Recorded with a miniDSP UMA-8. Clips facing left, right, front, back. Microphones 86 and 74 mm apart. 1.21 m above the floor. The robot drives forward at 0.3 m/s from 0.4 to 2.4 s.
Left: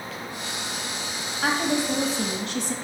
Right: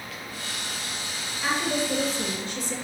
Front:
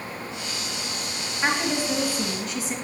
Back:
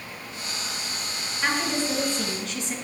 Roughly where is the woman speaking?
Left.